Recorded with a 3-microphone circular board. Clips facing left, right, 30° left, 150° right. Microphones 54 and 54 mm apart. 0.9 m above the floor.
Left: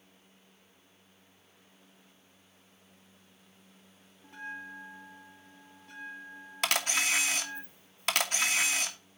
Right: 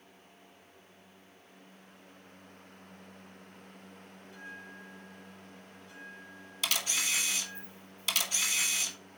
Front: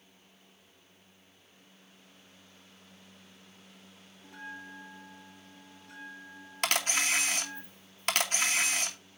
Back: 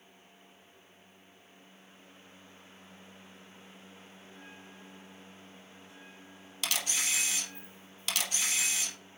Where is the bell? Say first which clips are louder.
Left 6 dB, front 10 dB; 50° left, 1.1 m.